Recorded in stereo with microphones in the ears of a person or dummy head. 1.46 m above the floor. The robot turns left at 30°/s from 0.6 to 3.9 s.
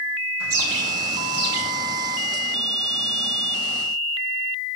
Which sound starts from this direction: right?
A bird, at 0.4 s.